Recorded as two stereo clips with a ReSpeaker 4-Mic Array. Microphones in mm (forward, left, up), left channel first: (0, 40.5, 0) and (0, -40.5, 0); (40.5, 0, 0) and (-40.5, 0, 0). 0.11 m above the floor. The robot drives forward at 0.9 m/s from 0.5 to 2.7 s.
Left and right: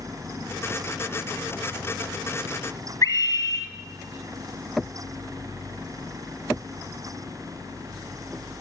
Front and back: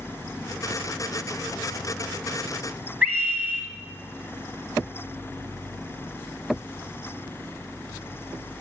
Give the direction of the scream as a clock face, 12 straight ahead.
8 o'clock.